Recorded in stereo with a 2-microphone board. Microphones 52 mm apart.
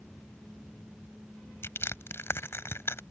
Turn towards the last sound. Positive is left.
turn(degrees=50)  # may be behind; listen again after turning